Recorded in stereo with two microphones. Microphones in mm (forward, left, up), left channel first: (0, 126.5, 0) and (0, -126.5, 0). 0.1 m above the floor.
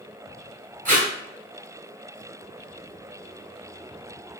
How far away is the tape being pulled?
About 0.9 m.